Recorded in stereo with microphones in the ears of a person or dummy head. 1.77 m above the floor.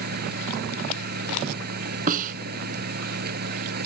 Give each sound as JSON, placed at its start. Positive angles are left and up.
{"t": 0.0, "sound": "a fan", "side_deg": -50}
{"t": 2.1, "sound": "a snare drum", "side_deg": -50}